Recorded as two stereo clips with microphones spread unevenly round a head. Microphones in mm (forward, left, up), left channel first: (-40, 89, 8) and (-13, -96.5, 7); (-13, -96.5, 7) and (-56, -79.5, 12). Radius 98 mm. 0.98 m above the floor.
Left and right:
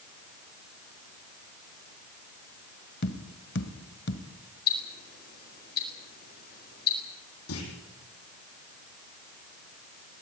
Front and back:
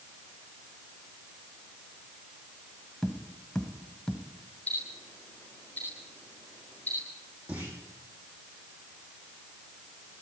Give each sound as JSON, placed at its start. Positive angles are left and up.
{"t": 3.0, "sound": "tapping", "azimuth_deg": 65, "distance_m": 1.5}
{"t": 4.7, "sound": "ticking", "azimuth_deg": 50, "distance_m": 4.5}
{"t": 7.5, "sound": "a clunk", "azimuth_deg": 75, "distance_m": 7.5}